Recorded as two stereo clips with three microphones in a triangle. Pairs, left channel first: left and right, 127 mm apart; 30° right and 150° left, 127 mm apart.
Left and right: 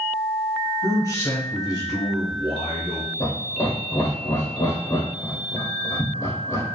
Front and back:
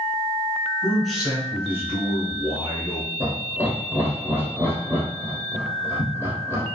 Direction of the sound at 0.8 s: 50° left.